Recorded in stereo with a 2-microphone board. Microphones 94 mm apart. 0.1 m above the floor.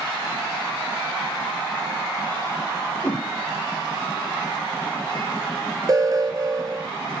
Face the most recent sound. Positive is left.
turn(degrees=-40)  # may be behind; listen again after turning